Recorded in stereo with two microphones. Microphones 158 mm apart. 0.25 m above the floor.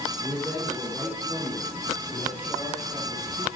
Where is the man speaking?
15° right (ahead or behind), 3 m; by 3.5 s 10° right (ahead or behind), 4.5 m.